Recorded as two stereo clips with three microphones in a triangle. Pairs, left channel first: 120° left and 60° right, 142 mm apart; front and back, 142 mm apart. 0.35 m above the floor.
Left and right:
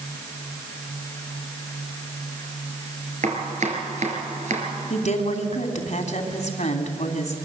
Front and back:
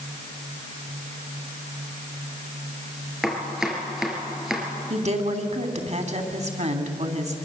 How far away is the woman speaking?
About 3 m.